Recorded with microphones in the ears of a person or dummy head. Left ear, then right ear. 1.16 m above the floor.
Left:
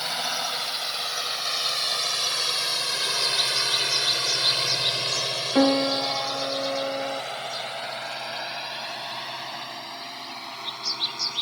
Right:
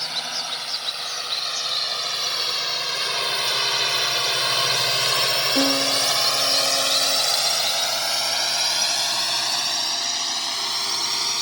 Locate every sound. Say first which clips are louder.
0.0 s a drone: even; 20° left (ahead or behind); by 11.4 s 85° right
5.5 s a piano: right 1 dB; 40° left (ahead or behind)